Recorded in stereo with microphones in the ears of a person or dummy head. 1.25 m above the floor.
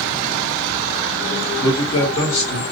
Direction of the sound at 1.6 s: 10° left (ahead or behind).